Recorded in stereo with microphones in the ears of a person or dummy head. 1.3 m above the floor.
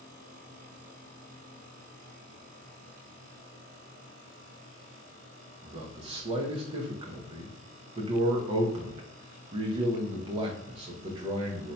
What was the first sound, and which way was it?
A man speaking, 35° right (ahead or behind).